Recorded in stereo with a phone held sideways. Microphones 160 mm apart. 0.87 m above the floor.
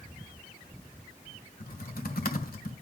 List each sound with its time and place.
1.6 s typing on a keyboard: 70° left (ahead or behind), 1.7 m